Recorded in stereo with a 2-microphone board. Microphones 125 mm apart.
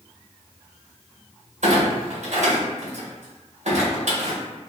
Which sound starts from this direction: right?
A clunk, at 1.6 s.